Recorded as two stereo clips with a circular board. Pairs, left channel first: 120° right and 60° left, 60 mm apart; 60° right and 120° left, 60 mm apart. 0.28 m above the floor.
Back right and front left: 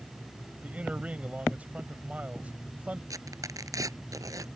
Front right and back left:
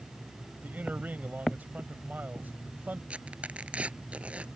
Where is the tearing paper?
50° left.